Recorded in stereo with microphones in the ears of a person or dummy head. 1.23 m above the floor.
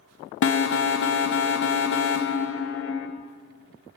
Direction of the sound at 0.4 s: 60° left (ahead or behind).